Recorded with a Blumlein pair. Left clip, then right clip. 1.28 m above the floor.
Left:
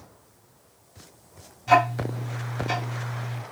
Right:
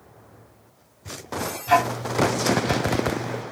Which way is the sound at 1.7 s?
Straight ahead.